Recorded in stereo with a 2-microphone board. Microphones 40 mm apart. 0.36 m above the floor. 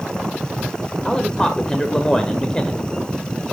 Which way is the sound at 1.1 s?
20° left (ahead or behind).